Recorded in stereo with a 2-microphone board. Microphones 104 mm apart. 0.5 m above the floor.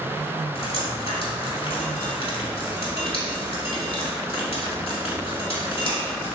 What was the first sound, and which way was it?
Dripping, 70° left (ahead or behind).